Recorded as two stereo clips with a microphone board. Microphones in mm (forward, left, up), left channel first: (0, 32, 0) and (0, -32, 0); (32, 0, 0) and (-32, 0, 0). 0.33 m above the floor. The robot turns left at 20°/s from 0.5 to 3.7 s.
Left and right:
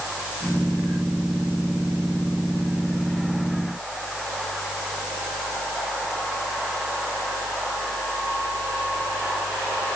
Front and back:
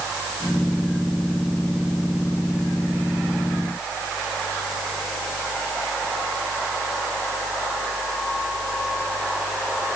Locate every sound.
Only background noise.